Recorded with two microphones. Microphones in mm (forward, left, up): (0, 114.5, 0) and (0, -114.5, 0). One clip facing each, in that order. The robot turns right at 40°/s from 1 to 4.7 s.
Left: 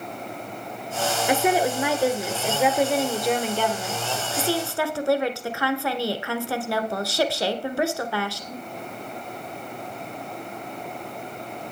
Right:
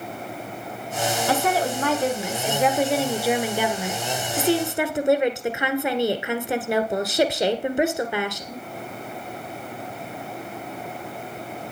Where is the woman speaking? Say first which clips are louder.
Left 3 dB; 15° left (ahead or behind), 1.2 m; by 8.6 s 20° right (ahead or behind), 1.2 m.